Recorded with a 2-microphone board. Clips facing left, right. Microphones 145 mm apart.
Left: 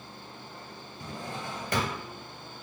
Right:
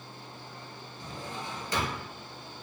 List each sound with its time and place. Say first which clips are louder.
1.0 s a drawer: left 2 dB; 55° left (ahead or behind), 1.1 m